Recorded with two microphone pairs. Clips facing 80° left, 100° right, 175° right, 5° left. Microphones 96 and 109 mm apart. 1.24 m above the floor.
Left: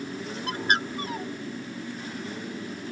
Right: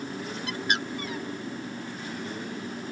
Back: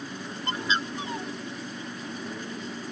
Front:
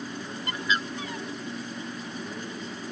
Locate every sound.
0.5 s a bird: 125° left